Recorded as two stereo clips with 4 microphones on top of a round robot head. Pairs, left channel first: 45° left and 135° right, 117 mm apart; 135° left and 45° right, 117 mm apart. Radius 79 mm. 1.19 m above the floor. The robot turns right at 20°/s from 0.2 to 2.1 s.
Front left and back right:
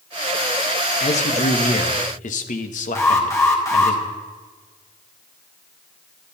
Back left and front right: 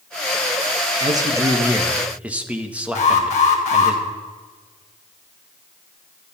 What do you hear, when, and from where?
1.0 s a man speaking: 15° left, 1.7 m; by 4.0 s 35° left, 1.7 m
3.0 s an alarm: 110° left, 3.5 m